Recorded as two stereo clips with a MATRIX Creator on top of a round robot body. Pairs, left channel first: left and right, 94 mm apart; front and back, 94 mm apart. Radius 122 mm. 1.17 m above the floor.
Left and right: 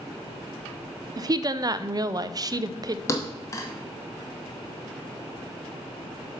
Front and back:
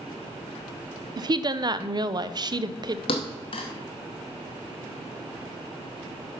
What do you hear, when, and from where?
1.2 s a woman speaking: 140° right, 0.6 m
3.1 s a thud: 30° left, 0.7 m